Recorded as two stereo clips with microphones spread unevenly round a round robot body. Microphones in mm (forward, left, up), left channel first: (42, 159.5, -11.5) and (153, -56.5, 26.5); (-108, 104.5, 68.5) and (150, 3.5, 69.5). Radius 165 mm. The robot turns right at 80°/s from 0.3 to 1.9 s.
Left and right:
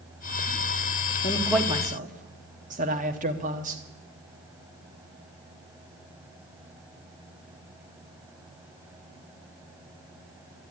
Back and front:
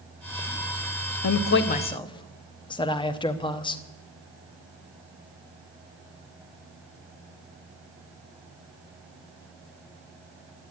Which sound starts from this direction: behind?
A man speaking, at 1.2 s.